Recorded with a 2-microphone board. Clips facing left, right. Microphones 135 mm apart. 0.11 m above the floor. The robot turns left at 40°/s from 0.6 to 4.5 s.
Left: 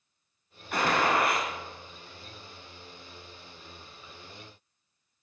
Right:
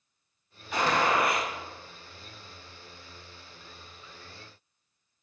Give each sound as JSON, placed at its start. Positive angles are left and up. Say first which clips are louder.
{"t": 0.7, "sound": "a gunshot", "louder": "even", "azimuth_deg": 80, "distance_m": 1.5}